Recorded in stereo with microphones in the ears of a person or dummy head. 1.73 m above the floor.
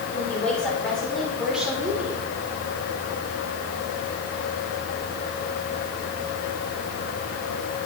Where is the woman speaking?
5° left (ahead or behind), 6 m; by 2.2 s 10° right (ahead or behind), 5 m.